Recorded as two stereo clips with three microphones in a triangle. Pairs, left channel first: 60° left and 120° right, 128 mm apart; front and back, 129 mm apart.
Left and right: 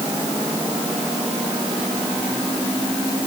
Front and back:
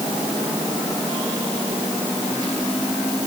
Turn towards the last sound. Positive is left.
No sound to turn to.